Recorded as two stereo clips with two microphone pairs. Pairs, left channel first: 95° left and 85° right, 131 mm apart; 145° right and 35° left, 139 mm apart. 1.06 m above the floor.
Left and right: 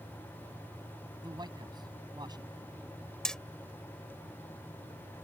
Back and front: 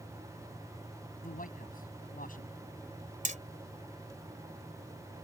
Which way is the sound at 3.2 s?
10° left.